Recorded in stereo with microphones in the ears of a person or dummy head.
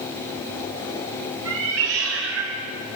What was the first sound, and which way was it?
A cat meowing, 80° right.